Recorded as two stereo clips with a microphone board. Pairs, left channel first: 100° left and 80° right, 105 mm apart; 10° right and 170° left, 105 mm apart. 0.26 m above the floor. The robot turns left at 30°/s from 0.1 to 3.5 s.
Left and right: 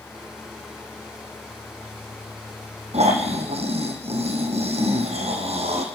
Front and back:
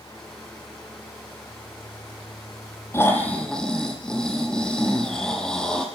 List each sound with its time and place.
2.9 s snoring: 75° right, 3 m; by 5.8 s 95° right, 3 m